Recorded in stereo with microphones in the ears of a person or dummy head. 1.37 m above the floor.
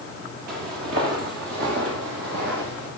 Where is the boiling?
I don't hear boiling.